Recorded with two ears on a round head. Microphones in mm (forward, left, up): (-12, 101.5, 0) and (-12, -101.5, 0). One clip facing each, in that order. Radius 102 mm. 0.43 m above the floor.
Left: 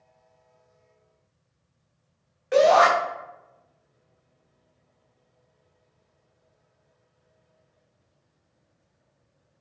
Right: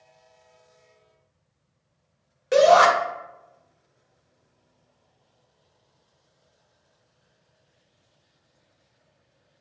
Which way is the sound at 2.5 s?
50° right (ahead or behind).